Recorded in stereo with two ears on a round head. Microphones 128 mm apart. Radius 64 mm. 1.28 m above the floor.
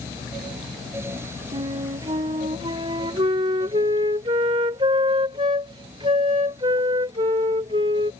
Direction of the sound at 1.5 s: 35° right (ahead or behind).